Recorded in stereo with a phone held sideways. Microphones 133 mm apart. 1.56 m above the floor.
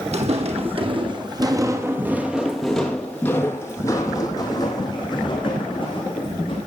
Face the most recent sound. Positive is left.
turn(degrees=40)  # may be behind; listen again after turning